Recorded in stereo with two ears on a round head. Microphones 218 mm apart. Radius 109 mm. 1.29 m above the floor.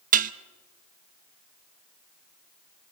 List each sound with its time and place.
0.1 s dishes clattering: 35° right (ahead or behind), 0.6 m